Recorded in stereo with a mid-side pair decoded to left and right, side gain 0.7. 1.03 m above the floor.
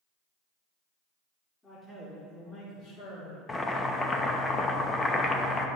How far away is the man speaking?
About 2.5 m.